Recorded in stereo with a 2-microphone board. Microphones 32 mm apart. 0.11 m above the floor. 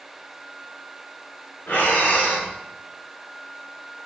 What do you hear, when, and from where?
1.7 s breathing: 85° left, 8 m